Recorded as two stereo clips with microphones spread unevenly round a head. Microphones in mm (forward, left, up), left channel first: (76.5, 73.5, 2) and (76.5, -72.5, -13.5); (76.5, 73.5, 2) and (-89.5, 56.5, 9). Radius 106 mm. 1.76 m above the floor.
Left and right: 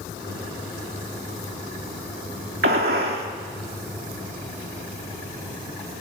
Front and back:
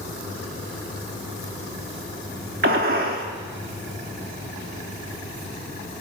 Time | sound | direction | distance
2.6 | a gunshot | 130° right | 2.5 m